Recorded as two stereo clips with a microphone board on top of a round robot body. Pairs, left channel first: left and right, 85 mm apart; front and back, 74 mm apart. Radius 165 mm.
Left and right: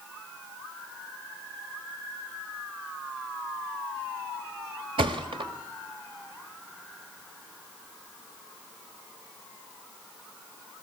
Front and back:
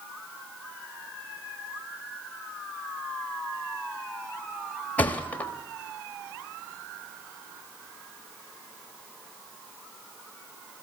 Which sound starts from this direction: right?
A thud, at 5.0 s.